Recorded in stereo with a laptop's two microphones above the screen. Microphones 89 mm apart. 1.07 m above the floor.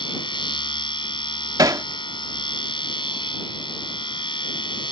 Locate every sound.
0.0 s a machine running: 65° left (ahead or behind)
1.6 s hammering: 45° right (ahead or behind)